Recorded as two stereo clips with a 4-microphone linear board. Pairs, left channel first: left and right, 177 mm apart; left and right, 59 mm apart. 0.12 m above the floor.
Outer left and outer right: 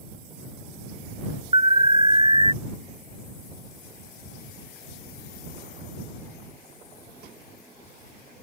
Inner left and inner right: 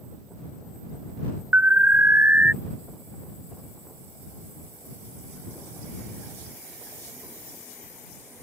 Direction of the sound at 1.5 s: 30° right (ahead or behind).